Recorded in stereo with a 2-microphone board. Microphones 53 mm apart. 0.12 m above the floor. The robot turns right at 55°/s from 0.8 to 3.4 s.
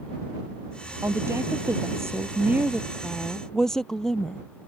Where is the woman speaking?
120° right; by 4.4 s 10° left.